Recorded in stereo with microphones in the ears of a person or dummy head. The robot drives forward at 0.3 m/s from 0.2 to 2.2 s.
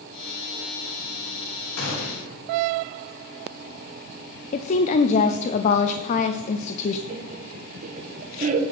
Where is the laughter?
40° right (ahead or behind), 1.3 m.